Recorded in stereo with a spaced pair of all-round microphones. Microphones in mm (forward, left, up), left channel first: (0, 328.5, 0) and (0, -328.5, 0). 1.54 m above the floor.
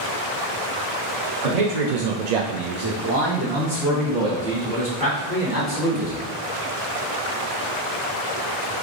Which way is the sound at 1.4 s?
60° right (ahead or behind).